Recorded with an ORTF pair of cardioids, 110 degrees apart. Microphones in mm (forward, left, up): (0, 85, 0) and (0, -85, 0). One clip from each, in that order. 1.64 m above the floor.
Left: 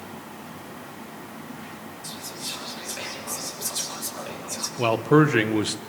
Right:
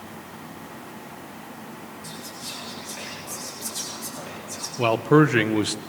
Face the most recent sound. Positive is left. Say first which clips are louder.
# right 1 dB
turn(degrees=-5)